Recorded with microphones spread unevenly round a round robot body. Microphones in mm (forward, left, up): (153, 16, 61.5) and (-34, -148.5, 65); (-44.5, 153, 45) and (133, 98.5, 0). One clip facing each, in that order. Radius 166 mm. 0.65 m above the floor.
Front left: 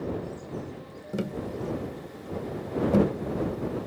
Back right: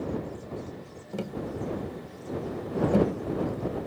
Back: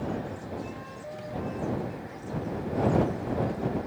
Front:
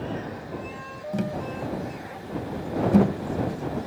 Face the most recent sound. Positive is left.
turn(degrees=-30)